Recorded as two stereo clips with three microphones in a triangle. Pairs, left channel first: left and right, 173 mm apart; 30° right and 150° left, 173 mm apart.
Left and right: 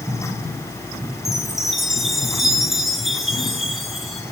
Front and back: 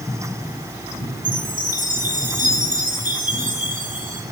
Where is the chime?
Straight behind, 3.5 m.